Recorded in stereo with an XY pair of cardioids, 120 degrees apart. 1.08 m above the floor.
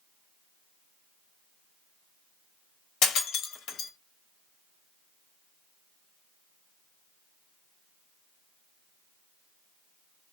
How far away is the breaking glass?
About 1.1 m.